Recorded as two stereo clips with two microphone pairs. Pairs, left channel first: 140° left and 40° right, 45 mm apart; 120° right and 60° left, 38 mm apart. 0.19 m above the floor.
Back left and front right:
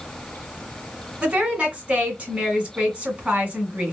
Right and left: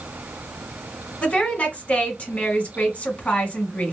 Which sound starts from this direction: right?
A woman speaking, at 1.2 s.